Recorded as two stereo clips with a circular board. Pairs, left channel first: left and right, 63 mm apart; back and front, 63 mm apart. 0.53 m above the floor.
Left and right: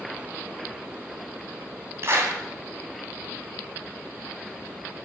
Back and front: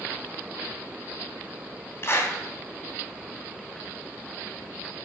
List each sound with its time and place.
2.0 s a clap: 135° right, 3.5 m